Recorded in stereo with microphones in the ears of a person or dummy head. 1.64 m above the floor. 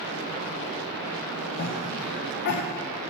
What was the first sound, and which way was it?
A cough, 45° left (ahead or behind).